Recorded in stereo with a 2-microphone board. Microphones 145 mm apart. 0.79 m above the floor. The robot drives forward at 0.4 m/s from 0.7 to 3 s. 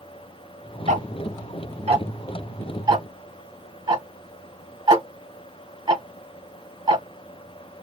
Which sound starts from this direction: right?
Ticking, at 0.9 s.